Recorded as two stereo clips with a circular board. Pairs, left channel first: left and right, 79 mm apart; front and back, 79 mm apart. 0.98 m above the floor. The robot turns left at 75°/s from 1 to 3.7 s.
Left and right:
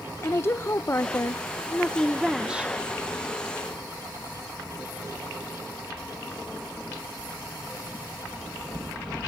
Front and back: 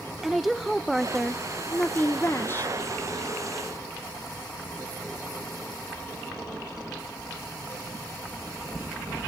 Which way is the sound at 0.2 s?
90° left.